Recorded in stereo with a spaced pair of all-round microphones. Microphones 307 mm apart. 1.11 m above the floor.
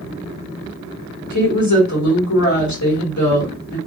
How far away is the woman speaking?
About 1.4 m.